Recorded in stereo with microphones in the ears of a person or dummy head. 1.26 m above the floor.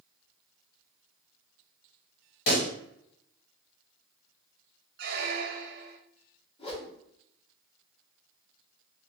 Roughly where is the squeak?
Right.